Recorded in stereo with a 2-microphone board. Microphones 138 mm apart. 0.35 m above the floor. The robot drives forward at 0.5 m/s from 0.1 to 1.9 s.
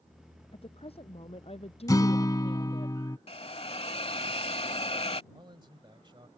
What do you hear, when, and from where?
0.5 s a woman speaking: 45° left (ahead or behind)
1.9 s a guitar: 25° left (ahead or behind)
3.3 s a hiss: 45° left (ahead or behind)
5.3 s a man speaking: 35° right (ahead or behind)